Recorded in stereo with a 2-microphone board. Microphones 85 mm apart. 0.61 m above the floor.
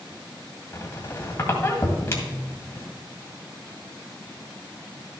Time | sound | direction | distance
0.7 | a squeak | 30° left (ahead or behind) | 1.9 m